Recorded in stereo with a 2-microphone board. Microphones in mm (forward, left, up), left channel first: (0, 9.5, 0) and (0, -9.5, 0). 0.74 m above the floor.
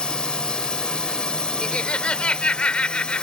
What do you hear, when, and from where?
0.0 s a drone: 50° left (ahead or behind)
1.6 s laughter: 70° left (ahead or behind)